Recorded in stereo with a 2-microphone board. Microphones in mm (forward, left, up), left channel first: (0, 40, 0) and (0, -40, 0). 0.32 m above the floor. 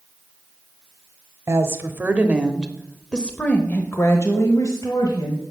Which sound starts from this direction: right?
A woman speaking, at 1.5 s.